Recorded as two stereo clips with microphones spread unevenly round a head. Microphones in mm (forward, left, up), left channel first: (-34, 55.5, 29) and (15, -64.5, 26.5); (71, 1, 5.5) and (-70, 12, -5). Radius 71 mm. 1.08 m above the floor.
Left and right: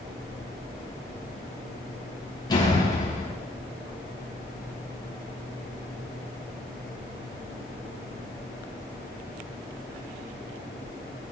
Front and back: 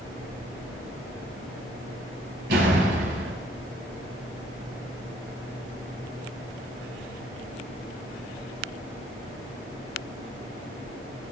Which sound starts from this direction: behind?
A door slam, at 2.5 s.